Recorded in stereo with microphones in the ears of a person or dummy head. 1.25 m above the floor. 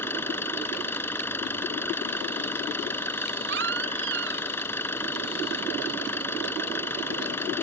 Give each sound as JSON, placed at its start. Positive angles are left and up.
{"t": 0.0, "sound": "an engine running", "side_deg": 15}
{"t": 3.5, "sound": "a baby crying", "side_deg": -65}